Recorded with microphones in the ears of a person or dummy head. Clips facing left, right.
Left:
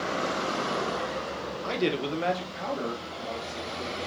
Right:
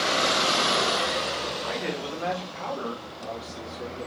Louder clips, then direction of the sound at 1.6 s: Left 8 dB; 55° left (ahead or behind).